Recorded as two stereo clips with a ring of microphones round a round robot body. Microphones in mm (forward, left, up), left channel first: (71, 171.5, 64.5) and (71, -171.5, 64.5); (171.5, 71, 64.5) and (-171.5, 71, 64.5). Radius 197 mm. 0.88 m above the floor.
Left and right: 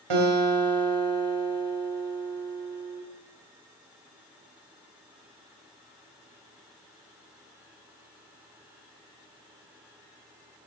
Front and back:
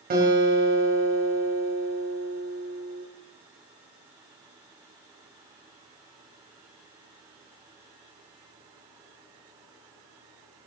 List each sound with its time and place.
0.1 s a guitar: 110° right, 4 m